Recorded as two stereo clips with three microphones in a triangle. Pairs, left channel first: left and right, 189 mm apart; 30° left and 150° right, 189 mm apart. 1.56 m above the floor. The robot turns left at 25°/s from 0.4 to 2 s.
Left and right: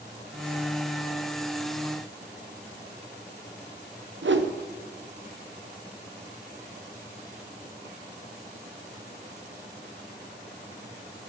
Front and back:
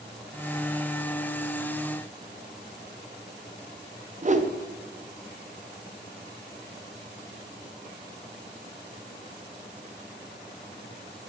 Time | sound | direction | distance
4.2 | a whoosh | 95° right | 0.5 m